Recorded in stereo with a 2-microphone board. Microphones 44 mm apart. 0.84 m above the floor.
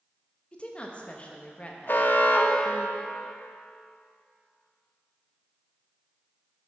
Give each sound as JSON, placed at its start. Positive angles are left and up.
{"t": 0.5, "sound": "a woman speaking", "side_deg": 30, "distance_m": 1.0}
{"t": 1.9, "sound": "an alarm", "side_deg": 50, "distance_m": 0.9}